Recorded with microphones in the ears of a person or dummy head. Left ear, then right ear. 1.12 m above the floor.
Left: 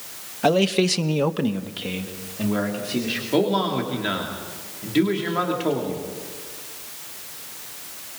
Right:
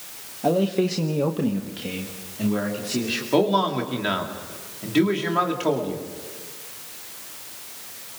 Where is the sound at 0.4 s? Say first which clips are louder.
Left 3 dB; 55° left (ahead or behind), 1.3 m; by 3.2 s 5° left (ahead or behind), 3 m.